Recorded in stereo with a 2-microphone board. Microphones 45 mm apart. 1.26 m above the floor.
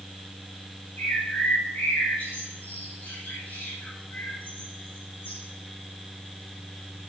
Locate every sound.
1.0 s a bird: 45° left (ahead or behind), 4.5 m